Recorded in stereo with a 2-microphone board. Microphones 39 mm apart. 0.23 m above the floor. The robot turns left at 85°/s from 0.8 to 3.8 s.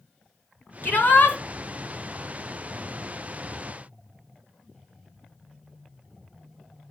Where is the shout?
90° left, 1.9 m; by 1.4 s 45° left, 1.9 m.